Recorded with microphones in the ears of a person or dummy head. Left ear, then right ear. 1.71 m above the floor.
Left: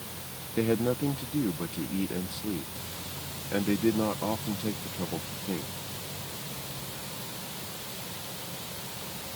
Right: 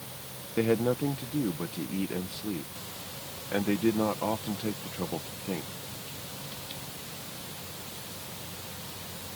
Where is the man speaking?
15° right (ahead or behind).